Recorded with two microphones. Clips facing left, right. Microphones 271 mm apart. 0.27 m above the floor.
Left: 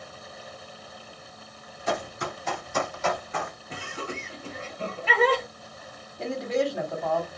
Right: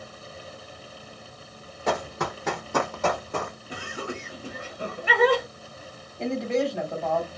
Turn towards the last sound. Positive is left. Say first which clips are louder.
# right 2 dB
turn(degrees=0)  # may be behind; listen again after turning